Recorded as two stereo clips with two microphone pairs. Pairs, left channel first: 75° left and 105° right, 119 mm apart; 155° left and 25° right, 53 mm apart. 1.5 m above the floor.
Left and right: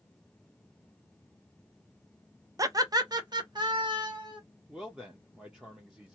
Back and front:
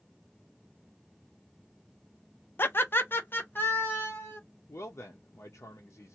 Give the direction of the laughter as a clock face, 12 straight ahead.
5 o'clock.